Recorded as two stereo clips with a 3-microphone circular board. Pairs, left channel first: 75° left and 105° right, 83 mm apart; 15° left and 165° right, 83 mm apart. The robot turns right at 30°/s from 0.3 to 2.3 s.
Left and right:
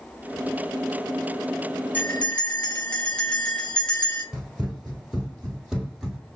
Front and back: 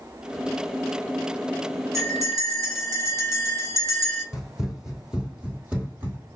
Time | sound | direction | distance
1.9 | a bell | 140° left | 1.0 m
4.3 | running footsteps | 65° right | 1.3 m